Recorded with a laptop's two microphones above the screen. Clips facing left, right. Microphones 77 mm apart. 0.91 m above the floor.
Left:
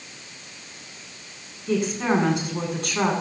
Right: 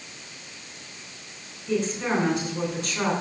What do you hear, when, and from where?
1.7 s a woman speaking: 60° left (ahead or behind), 9 m